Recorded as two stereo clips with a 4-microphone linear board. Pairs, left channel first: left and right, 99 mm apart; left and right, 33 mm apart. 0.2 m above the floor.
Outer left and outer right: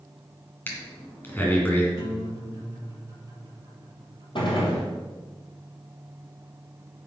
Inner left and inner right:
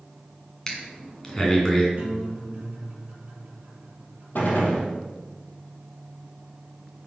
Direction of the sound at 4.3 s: 55° left (ahead or behind).